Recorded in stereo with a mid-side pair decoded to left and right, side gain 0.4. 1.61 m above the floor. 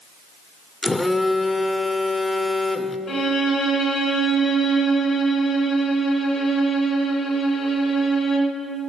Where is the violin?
55° left, 1.8 m.